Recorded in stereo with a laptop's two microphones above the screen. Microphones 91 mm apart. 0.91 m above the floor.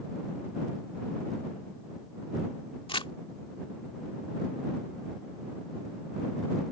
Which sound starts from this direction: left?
Crumpling, at 2.9 s.